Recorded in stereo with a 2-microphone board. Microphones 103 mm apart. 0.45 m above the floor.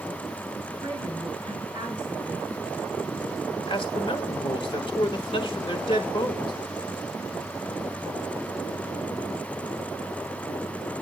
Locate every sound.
0.8 s a woman speaking: 40° right (ahead or behind), 7.5 m
3.7 s a man speaking: 50° left (ahead or behind), 1.3 m